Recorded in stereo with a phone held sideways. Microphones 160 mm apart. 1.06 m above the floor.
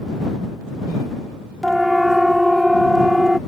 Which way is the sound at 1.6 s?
Centre (ahead or behind).